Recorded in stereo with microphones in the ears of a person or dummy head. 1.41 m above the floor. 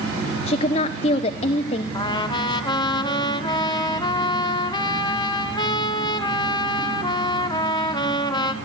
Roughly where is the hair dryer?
I don't hear a hair dryer.